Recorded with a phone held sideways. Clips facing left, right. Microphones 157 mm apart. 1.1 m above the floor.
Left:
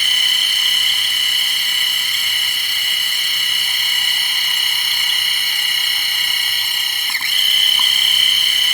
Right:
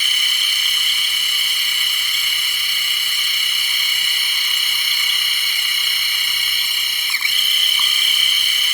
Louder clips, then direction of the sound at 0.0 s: Left 2 dB; 55° left (ahead or behind).